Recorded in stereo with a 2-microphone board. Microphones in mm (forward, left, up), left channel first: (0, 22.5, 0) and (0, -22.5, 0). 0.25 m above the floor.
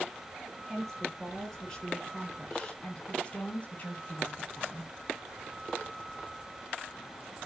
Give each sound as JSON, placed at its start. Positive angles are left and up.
{"t": 0.7, "sound": "a woman speaking", "side_deg": 5, "distance_m": 5.0}